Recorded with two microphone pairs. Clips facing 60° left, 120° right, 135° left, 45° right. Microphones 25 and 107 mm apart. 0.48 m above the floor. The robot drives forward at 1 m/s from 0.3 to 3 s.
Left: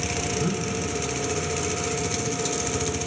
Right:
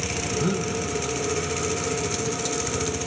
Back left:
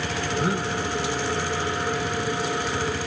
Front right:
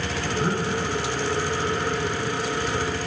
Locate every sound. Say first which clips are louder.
0.3 s breathing: right 5 dB, front right 1 dB; 145° right, 1.4 m; by 0.7 s 155° right, 1.7 m